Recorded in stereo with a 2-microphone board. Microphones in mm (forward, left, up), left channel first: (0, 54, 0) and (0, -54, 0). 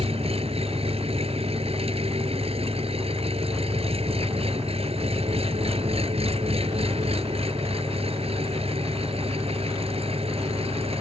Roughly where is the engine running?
Right.